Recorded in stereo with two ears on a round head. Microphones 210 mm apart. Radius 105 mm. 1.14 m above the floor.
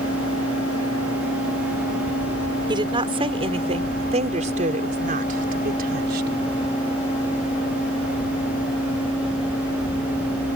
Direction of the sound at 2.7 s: 20° right (ahead or behind).